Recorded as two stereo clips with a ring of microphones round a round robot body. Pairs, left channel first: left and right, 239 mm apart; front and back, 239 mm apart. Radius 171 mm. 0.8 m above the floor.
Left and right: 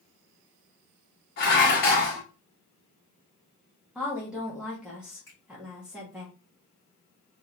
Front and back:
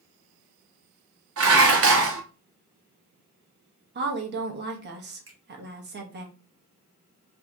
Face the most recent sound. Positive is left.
turn(degrees=175)